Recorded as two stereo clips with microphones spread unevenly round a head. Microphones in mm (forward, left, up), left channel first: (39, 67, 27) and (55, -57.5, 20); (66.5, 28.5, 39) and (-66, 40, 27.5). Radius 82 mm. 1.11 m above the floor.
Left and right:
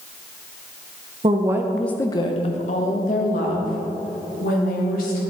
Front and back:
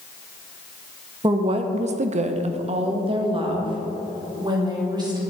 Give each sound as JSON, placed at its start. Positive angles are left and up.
{"t": 1.2, "sound": "a woman speaking", "azimuth_deg": -130, "distance_m": 0.8}